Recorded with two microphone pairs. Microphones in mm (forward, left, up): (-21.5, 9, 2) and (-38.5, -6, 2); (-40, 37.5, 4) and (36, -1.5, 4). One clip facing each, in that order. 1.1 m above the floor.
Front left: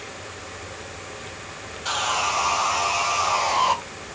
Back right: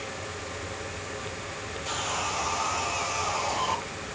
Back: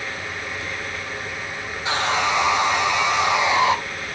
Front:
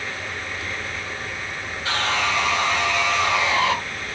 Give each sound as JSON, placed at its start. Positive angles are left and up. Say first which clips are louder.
{"t": 1.9, "sound": "sawing", "louder": "front left 8 dB, back 2 dB", "azimuth_deg": 80, "distance_m": 0.6}